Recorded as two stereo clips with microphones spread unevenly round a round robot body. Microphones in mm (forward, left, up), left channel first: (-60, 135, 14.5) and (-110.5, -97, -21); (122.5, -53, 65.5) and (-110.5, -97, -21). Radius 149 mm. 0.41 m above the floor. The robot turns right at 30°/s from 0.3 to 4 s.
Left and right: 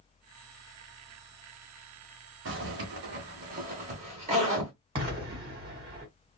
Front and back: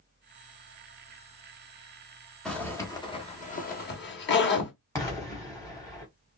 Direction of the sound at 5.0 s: 95° right.